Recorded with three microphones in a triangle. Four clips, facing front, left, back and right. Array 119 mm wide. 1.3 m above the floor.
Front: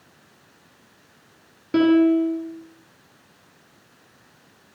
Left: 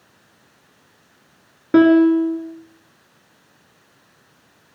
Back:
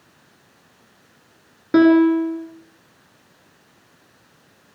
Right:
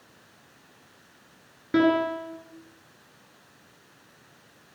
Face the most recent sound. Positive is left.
turn(degrees=110)